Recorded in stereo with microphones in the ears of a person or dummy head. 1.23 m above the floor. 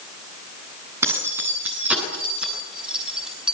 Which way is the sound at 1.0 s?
10° right (ahead or behind).